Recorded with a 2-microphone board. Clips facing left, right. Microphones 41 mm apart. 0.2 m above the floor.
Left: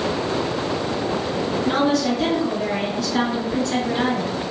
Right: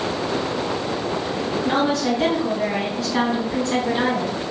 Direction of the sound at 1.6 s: 25° right (ahead or behind).